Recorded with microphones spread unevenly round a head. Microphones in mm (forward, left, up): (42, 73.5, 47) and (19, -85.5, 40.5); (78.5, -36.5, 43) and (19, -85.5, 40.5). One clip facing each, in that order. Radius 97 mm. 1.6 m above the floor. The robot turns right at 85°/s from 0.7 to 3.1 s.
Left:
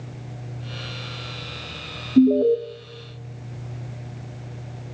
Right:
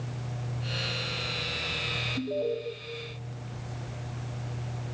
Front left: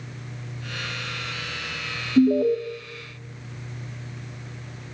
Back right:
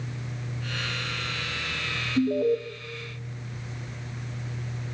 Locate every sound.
2.2 s an alarm: 95° left, 0.8 m; by 2.6 s 130° left, 0.8 m